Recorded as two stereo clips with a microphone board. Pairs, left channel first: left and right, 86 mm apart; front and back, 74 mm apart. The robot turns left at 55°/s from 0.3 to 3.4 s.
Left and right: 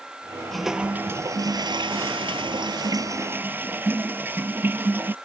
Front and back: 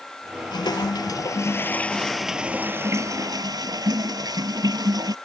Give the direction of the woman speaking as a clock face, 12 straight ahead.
No woman speaking in this recording.